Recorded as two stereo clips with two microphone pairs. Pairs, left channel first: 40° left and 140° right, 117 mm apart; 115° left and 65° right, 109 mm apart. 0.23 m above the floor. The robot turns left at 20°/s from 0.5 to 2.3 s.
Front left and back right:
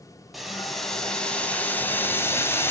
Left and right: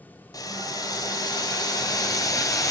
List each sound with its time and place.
0.3 s boiling: 130° left, 1.8 m; by 2.7 s 95° left, 1.8 m